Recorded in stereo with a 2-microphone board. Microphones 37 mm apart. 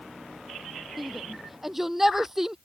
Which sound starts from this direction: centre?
A shout, at 1.0 s.